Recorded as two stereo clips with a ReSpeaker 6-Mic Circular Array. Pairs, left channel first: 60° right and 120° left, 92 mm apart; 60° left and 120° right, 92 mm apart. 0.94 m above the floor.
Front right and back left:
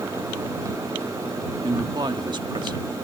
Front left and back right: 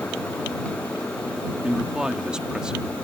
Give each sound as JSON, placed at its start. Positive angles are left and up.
{"t": 1.6, "sound": "a man speaking", "azimuth_deg": 160}